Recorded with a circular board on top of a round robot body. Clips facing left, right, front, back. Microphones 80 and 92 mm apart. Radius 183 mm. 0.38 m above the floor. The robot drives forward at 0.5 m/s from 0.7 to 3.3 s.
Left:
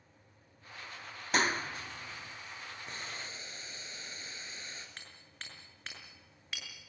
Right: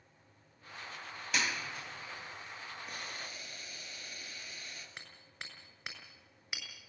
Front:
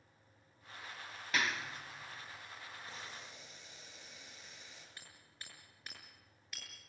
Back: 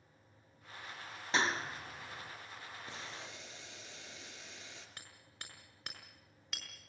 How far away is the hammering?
About 6.5 m.